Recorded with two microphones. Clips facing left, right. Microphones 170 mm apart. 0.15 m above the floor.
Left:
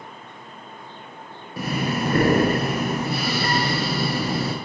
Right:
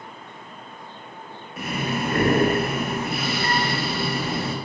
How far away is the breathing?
About 0.5 m.